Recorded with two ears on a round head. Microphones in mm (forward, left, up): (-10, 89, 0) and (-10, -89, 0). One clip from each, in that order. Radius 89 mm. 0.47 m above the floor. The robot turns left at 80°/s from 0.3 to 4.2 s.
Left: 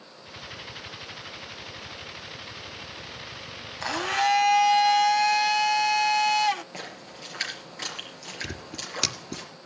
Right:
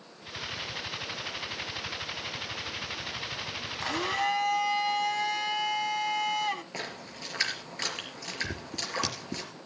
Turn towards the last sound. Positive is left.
turn(degrees=55)  # may be behind; listen again after turning